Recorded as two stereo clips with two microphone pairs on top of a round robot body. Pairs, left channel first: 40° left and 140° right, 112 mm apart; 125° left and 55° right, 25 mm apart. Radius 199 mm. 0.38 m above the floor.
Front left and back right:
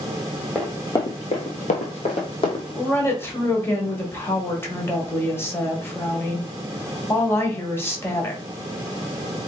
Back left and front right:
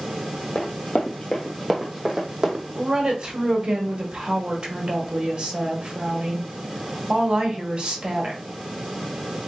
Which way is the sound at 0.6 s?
120° left.